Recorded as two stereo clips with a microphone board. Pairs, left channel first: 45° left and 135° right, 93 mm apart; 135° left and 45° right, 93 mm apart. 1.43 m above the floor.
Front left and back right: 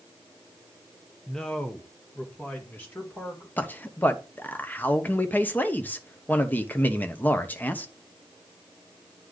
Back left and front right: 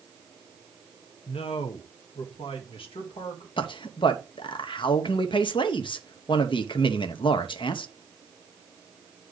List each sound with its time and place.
1.3 s a man speaking: 130° left, 0.7 m; by 3.5 s 115° left, 2 m
3.6 s a man speaking: 115° left, 0.9 m